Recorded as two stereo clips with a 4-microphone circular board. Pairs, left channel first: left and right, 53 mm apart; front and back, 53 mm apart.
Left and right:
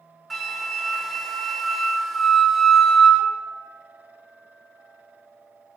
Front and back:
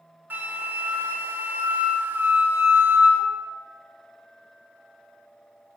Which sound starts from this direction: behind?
A flute, at 0.3 s.